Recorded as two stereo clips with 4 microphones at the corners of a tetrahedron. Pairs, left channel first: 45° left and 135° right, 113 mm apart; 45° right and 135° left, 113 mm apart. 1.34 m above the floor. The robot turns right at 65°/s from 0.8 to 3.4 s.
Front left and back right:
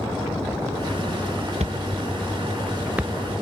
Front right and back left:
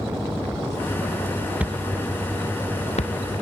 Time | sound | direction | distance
1.6 | a thud | 150° right | ?